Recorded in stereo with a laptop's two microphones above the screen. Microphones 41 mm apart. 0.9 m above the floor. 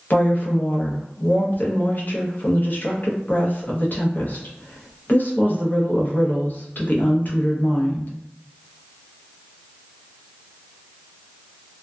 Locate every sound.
0.1 s a woman speaking: 50° left (ahead or behind), 0.7 m